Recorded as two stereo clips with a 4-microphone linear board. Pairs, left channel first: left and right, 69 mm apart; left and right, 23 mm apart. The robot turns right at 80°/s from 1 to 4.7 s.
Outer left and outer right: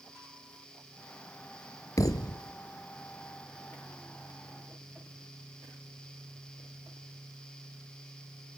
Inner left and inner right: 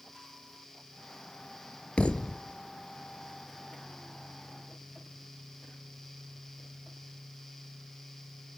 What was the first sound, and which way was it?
A thud, 60° left.